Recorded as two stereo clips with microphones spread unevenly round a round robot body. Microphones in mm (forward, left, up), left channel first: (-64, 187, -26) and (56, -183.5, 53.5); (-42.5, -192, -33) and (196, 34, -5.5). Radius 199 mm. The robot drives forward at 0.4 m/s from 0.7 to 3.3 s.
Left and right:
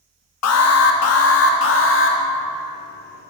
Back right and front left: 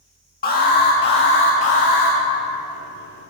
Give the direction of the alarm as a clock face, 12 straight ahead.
7 o'clock.